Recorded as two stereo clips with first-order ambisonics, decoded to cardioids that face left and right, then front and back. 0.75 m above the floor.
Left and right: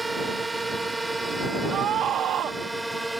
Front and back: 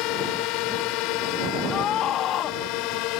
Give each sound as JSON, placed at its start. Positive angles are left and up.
{"t": 0.0, "sound": "a drone", "azimuth_deg": -5}
{"t": 1.7, "sound": "a scream", "azimuth_deg": -40}